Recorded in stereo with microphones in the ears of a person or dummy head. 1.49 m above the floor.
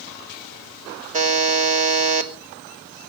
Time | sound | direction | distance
1.1 | a buzzer | 40° right (ahead or behind) | 1.3 m